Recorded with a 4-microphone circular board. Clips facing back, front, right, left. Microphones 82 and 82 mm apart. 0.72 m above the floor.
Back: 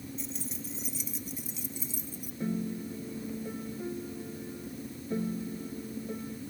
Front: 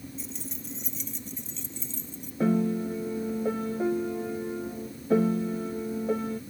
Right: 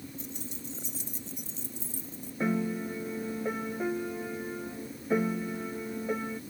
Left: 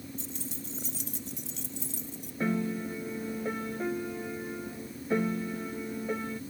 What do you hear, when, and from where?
0.2 s keys jangling: 85° left; by 2.3 s 100° left
2.4 s a piano: 5° right